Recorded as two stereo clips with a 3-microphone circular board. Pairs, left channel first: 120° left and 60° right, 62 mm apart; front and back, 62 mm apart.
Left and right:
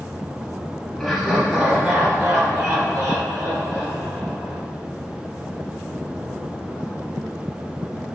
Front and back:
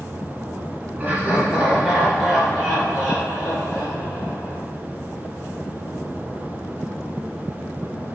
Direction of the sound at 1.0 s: 160° right.